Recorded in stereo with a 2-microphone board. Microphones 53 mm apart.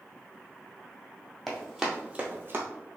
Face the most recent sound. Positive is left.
turn(degrees=-50)  # may be behind; listen again after turning